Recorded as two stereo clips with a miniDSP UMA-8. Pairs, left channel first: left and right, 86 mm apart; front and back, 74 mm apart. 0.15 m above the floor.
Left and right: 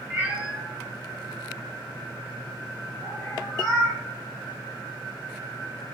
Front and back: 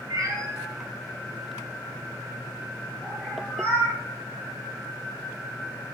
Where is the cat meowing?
160° right, 0.8 m; by 4.0 s 70° left, 1.5 m.